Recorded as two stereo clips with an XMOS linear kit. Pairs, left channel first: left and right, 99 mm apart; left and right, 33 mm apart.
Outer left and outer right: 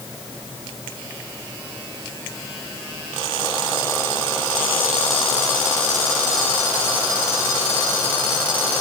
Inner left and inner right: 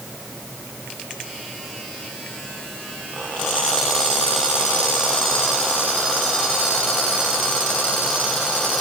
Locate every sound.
Only background noise.